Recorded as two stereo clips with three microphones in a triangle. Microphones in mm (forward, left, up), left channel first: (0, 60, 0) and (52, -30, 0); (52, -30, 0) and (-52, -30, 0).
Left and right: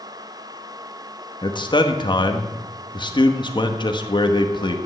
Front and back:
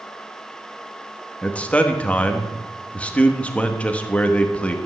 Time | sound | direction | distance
1.4 | a man speaking | 80° left | 1.6 m